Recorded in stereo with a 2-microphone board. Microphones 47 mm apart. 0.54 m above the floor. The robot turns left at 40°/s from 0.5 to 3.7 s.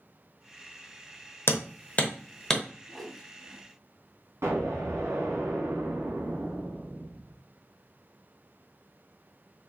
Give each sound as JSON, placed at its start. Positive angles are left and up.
{"t": 1.5, "sound": "hammering", "side_deg": 55, "distance_m": 0.9}
{"t": 2.9, "sound": "a whoosh", "side_deg": 15, "distance_m": 0.5}
{"t": 4.4, "sound": "an explosion", "side_deg": -85, "distance_m": 1.6}